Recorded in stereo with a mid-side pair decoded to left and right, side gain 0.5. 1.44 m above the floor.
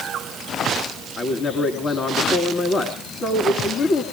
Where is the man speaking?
40° left, 3.5 m.